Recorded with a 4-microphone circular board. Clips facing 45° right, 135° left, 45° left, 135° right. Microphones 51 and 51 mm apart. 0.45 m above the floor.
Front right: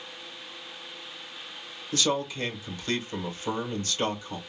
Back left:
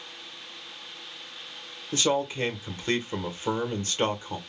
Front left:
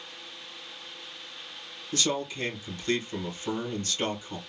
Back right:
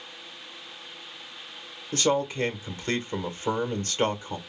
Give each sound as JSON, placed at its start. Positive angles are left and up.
{"t": 1.9, "sound": "a man speaking", "azimuth_deg": -170, "distance_m": 1.0}